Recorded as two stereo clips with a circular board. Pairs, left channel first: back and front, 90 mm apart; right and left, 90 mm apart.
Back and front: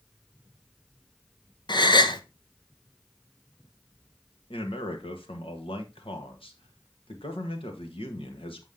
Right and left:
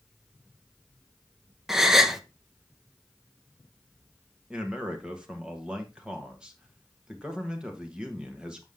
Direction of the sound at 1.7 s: 175° left.